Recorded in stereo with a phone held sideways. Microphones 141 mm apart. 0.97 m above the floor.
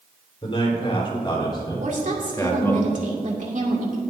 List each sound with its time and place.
0.4 s a man speaking: 40° left (ahead or behind), 4 m; by 2.8 s 15° left (ahead or behind), 1.9 m
1.8 s a woman speaking: 60° right (ahead or behind), 2.5 m